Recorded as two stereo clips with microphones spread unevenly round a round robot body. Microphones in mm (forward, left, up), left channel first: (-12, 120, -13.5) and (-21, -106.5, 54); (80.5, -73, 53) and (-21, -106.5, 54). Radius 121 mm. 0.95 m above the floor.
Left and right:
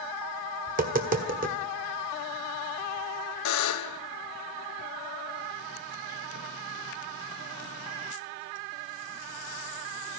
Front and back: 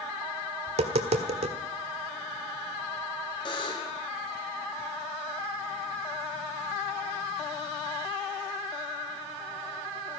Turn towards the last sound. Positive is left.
turn(degrees=80)